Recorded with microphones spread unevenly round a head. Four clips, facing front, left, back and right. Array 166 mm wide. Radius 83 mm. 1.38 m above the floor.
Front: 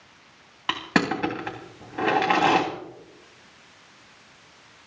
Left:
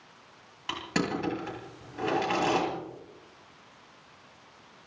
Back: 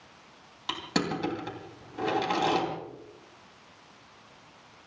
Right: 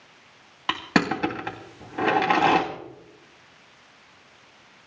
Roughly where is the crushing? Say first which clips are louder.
Right 7 dB, front 6 dB; ahead right.